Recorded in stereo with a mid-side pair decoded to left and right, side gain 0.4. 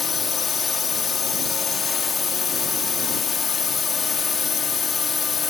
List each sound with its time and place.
0.0 s a drone: 50° left